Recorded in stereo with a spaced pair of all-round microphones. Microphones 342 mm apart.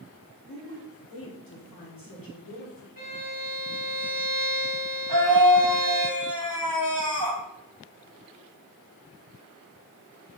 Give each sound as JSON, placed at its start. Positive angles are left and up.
{"t": 0.5, "sound": "a woman speaking", "side_deg": 75, "distance_m": 3.0}
{"t": 3.0, "sound": "a violin", "side_deg": -75, "distance_m": 2.0}
{"t": 5.1, "sound": "a scream", "side_deg": -70, "distance_m": 2.0}